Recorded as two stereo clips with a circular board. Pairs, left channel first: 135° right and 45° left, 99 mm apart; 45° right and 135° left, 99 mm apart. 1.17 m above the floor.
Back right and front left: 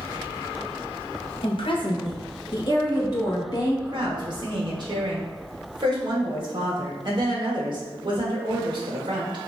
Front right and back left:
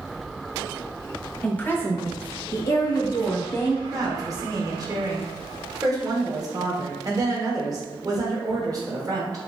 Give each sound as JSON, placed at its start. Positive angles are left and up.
{"t": 1.4, "sound": "a woman speaking", "azimuth_deg": -120, "distance_m": 0.8}
{"t": 3.9, "sound": "a woman speaking", "azimuth_deg": 85, "distance_m": 1.3}